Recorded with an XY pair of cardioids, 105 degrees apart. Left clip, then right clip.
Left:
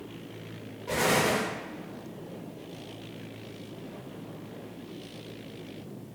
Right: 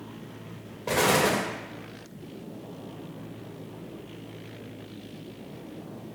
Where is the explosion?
65° right, 1.1 m.